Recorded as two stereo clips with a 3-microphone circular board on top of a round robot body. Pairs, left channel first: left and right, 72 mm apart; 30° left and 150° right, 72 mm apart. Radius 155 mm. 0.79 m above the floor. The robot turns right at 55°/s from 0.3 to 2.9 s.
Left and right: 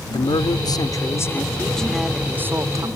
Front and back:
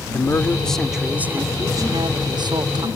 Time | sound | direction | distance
0.1 | a man speaking | 90° left | ?